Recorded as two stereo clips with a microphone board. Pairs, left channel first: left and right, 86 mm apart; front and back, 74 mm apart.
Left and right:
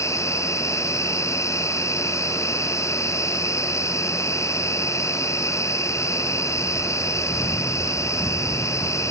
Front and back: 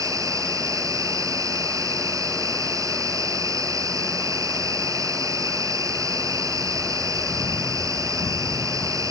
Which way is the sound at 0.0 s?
145° left.